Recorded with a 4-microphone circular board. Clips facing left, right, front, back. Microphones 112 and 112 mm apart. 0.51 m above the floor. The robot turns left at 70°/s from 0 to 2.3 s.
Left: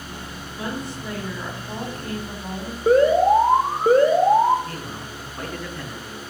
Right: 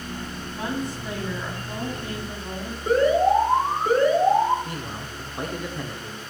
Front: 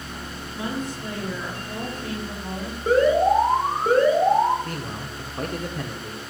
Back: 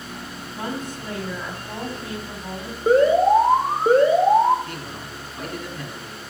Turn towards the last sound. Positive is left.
turn(degrees=-25)